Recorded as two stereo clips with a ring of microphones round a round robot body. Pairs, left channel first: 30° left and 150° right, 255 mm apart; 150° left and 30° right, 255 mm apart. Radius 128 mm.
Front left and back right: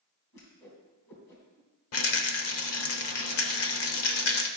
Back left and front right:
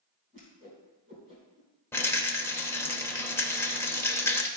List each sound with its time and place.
0.3 s a whoosh: 30° left, 3 m
1.9 s a rattle: 70° left, 1.0 m